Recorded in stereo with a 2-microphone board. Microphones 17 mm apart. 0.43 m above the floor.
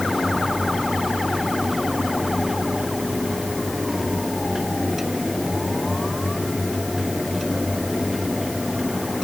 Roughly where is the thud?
No thud in this recording.